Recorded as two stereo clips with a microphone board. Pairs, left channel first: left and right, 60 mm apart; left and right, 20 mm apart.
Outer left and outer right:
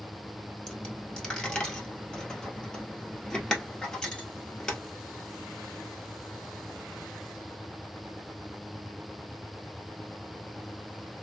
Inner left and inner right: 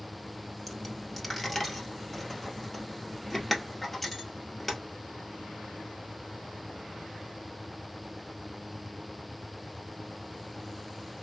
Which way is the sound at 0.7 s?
15° left (ahead or behind).